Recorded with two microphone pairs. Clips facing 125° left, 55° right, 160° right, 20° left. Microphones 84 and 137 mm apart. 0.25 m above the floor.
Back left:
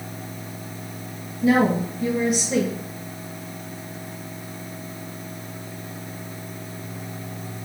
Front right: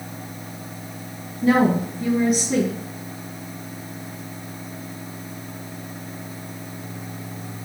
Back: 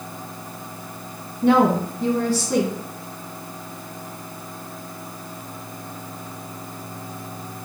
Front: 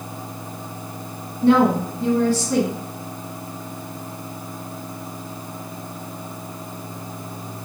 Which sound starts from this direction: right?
A woman speaking, at 1.4 s.